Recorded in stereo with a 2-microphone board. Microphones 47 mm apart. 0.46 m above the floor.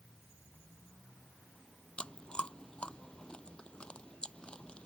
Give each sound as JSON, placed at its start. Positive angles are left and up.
{"t": 2.0, "sound": "chewing", "side_deg": 20}